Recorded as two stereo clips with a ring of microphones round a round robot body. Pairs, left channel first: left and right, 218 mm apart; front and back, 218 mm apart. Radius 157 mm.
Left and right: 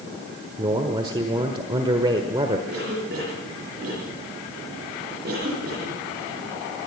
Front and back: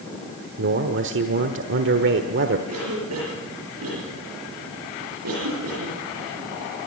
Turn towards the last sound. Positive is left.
turn(degrees=-150)